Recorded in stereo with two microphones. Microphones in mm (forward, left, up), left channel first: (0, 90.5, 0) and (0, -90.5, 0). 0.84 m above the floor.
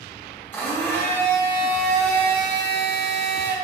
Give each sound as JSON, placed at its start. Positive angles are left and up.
{"t": 0.5, "sound": "a blender", "side_deg": 10, "distance_m": 0.9}